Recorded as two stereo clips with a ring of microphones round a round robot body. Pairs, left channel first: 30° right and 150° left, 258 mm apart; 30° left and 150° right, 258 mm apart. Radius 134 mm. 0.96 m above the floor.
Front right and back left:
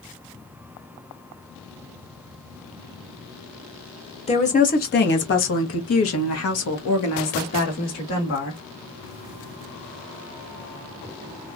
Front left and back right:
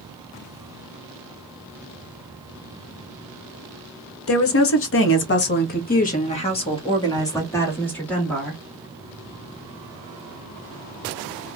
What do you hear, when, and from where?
4.3 s a woman speaking: 30° left, 1.2 m; by 8.6 s 60° right, 2 m